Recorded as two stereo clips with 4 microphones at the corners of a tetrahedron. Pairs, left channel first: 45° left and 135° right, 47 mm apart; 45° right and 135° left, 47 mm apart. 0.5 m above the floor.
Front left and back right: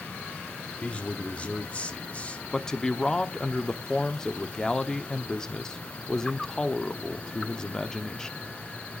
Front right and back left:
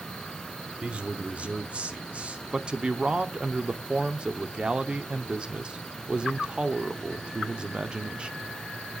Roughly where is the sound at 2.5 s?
Left.